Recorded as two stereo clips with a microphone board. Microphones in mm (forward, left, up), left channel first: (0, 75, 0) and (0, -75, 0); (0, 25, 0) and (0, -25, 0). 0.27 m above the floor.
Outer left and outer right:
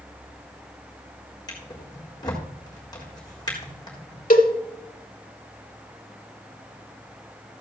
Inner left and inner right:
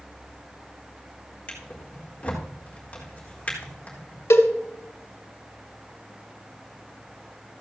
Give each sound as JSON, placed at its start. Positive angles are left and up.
{"t": 1.5, "sound": "a drawer", "side_deg": 25, "distance_m": 4.0}
{"t": 4.3, "sound": "a cowbell", "side_deg": 70, "distance_m": 1.7}